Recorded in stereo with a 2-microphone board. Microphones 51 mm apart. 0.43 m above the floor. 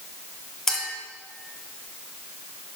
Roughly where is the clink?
Centre.